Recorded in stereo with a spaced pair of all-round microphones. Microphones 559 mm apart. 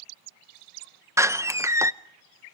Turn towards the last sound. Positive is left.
turn(degrees=-5)  # may be behind; listen again after turning